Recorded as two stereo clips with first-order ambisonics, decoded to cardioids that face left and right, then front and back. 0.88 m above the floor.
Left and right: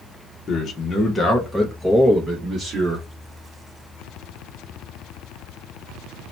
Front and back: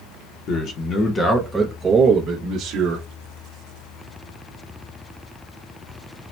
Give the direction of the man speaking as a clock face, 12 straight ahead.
11 o'clock.